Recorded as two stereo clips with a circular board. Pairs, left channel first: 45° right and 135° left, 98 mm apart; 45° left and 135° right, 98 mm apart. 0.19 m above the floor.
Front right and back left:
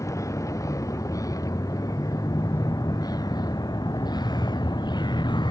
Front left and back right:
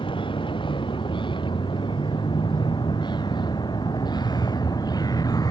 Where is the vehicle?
10° left; by 5.5 s 5° right.